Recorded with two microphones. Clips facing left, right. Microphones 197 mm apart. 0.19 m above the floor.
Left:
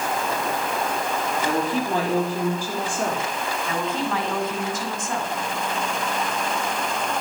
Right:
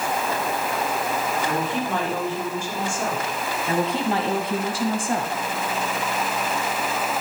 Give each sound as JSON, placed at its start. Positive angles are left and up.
{"t": 1.4, "sound": "a woman speaking", "side_deg": 35, "distance_m": 6.0}
{"t": 3.7, "sound": "a woman speaking", "side_deg": -35, "distance_m": 1.6}